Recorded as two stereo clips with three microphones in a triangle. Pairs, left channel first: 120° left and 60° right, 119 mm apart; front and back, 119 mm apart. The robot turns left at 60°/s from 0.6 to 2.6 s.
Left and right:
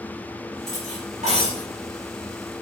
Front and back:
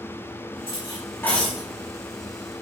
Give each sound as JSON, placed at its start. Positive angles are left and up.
{"t": 0.7, "sound": "cutlery clinking", "azimuth_deg": -40, "distance_m": 4.0}